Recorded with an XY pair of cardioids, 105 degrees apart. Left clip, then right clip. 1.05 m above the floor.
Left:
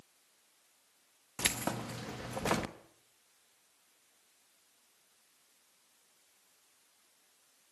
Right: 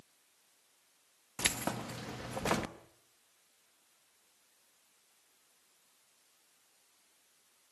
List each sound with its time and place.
1.4 s keys jangling: straight ahead, 1.1 m